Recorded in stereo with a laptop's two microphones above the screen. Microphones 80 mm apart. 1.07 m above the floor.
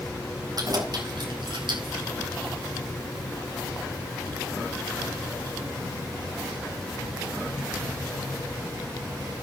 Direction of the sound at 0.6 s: 55° right (ahead or behind).